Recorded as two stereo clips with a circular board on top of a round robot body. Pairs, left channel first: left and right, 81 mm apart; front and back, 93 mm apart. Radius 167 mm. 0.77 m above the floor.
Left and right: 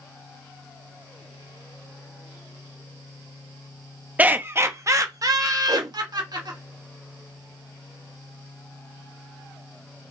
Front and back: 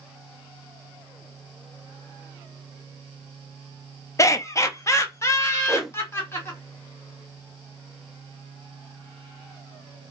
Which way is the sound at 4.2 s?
30° right.